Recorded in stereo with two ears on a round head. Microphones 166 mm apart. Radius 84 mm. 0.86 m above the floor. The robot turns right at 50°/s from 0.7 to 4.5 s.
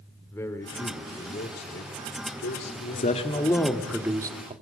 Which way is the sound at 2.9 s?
135° left.